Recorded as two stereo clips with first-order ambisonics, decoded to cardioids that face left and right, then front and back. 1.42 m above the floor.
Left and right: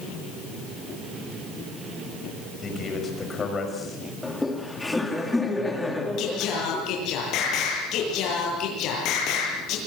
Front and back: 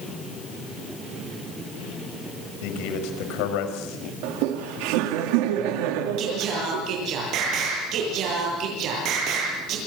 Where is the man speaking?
20° left, 6 m.